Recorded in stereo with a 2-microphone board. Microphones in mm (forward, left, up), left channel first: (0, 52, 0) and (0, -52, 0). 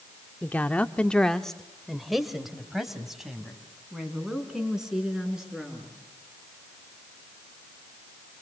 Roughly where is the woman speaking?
Centre.